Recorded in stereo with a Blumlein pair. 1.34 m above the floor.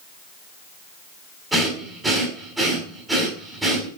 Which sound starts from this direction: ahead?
Breathing, at 1.5 s.